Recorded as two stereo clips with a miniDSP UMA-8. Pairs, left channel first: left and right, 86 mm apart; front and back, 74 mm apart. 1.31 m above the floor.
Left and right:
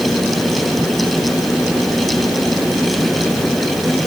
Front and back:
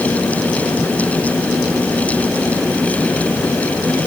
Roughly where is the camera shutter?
No camera shutter in this recording.